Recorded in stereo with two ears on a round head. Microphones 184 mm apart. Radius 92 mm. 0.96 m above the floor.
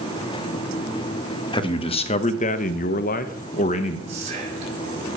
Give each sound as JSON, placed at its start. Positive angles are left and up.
{"t": 1.5, "sound": "a man speaking", "side_deg": 25, "distance_m": 1.2}
{"t": 4.1, "sound": "whispering", "side_deg": -35, "distance_m": 4.0}